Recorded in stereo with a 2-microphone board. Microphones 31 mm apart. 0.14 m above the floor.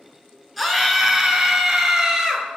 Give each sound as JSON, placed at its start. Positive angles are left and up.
{"t": 0.6, "sound": "a scream", "side_deg": -5, "distance_m": 2.0}